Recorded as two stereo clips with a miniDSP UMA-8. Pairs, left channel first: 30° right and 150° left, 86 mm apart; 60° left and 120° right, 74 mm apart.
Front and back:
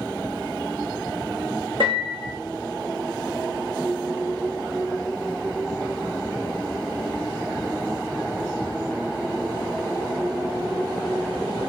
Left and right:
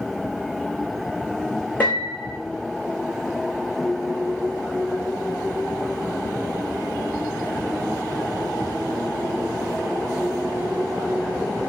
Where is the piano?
130° left, 3 m.